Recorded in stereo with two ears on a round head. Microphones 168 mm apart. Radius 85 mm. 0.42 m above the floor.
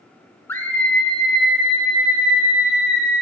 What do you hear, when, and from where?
0.5 s a scream: 15° left (ahead or behind), 0.9 m; by 3.2 s 5° right (ahead or behind), 3.5 m